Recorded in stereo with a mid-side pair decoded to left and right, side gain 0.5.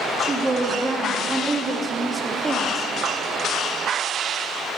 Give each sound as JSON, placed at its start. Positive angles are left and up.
{"t": 0.2, "sound": "a woman speaking", "azimuth_deg": -25, "distance_m": 1.3}